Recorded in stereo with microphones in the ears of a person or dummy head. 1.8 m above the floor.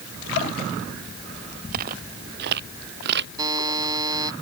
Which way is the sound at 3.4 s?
20° right (ahead or behind).